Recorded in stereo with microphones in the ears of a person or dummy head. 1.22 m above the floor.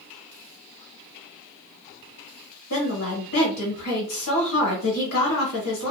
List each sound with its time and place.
2.7 s a woman speaking: 80° left, 1.4 m